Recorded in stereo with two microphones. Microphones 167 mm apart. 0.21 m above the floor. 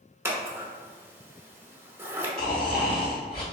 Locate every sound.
0.2 s scissors: 15° right (ahead or behind), 0.6 m
2.4 s snoring: 75° left (ahead or behind), 1.9 m